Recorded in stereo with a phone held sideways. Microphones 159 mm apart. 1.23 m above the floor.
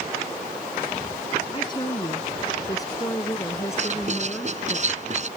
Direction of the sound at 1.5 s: 30° left (ahead or behind).